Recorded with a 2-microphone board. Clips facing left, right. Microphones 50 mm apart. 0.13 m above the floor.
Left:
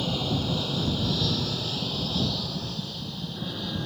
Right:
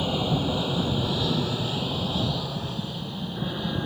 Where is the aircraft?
20° right (ahead or behind).